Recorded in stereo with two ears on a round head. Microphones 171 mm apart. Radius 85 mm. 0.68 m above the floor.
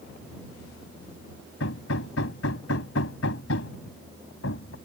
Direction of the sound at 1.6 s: 80° left.